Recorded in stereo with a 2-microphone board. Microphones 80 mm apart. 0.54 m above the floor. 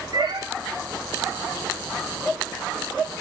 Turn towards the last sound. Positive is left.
turn(degrees=-65)  # may be behind; listen again after turning